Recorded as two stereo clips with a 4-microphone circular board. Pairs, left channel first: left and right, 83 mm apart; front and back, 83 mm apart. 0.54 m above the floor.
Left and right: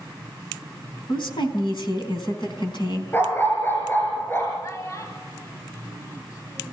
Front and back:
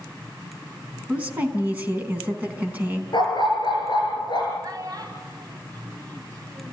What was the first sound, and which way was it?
A woman speaking, 110° left.